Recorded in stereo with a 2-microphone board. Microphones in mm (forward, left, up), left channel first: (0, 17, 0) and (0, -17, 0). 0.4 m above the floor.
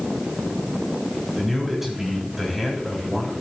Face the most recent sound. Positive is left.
turn(degrees=-5)  # may be behind; listen again after turning